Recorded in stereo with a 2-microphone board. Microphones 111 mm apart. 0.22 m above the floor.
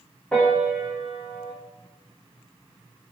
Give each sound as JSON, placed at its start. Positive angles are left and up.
{"t": 0.3, "sound": "a piano", "side_deg": 10, "distance_m": 9.5}